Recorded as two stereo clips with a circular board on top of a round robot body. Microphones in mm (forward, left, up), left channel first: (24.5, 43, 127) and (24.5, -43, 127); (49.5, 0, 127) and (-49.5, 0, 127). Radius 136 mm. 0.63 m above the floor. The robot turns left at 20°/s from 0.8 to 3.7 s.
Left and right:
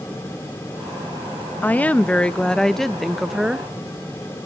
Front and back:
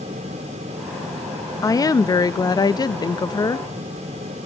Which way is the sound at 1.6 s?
30° left.